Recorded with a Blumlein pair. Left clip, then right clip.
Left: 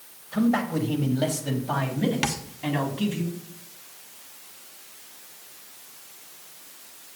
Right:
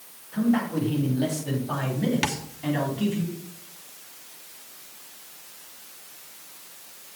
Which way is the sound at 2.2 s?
5° left.